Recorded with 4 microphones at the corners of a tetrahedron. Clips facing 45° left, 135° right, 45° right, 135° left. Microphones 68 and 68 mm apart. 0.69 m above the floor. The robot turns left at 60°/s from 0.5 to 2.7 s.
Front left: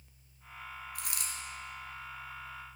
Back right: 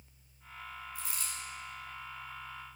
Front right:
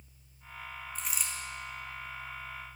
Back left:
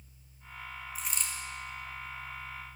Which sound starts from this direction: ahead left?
A dropped coin, at 0.9 s.